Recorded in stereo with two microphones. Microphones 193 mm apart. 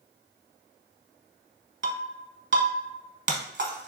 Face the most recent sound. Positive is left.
turn(degrees=-65)  # may be behind; listen again after turning